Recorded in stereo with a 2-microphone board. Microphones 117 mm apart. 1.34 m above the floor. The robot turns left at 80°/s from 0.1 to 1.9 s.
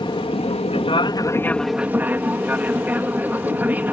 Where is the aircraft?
130° left; by 3.9 s 15° right.